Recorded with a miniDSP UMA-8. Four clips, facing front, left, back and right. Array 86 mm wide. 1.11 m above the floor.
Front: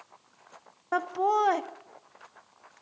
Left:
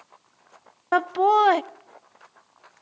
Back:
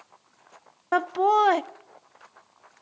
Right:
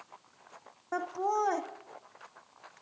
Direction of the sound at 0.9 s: 115° left.